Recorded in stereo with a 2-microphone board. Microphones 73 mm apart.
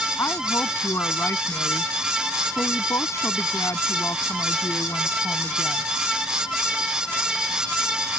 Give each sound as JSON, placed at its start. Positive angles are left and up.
{"t": 0.2, "sound": "a woman speaking", "side_deg": 40}